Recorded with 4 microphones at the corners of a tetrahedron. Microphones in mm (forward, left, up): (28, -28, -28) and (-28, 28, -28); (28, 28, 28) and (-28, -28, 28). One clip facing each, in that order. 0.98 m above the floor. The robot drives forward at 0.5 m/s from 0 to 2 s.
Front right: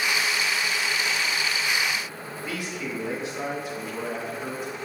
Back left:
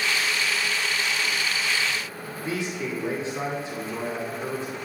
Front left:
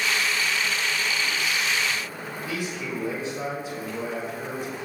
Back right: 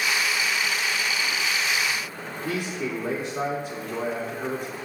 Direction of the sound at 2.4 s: 160° right.